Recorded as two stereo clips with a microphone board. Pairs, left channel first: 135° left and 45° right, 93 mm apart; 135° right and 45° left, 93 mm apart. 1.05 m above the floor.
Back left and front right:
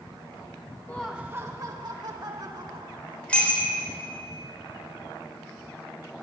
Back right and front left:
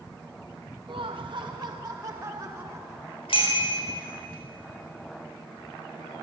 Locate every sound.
0.9 s laughter: 65° left, 0.5 m; by 3.2 s 25° right, 2.5 m
3.3 s a bicycle bell: 150° right, 3 m